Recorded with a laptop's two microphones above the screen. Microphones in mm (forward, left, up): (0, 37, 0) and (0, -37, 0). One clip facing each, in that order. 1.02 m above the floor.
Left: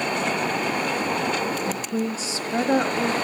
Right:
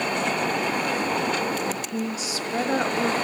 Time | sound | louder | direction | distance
1.7 | a woman speaking | left 2 dB | 45° left (ahead or behind) | 1.1 m